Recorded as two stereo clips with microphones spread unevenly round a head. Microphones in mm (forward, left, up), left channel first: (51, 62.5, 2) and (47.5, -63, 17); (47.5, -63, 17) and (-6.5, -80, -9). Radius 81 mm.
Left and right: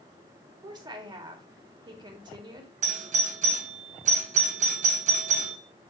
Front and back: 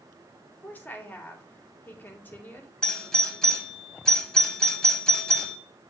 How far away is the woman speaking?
About 2 m.